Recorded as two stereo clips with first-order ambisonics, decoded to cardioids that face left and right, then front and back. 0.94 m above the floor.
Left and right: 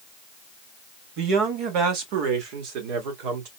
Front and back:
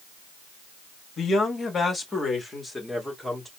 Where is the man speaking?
60° right, 1.5 m; by 3.5 s 95° right, 2.5 m.